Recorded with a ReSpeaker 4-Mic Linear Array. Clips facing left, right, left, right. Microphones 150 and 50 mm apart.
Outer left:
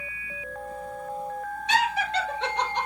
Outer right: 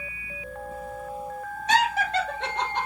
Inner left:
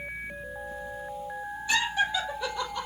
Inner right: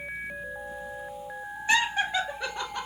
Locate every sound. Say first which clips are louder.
1.7 s laughter: outer right 2 dB, inner right 2 dB; 45° right (ahead or behind), 1.9 m; by 2.9 s 55° right (ahead or behind), 1.8 m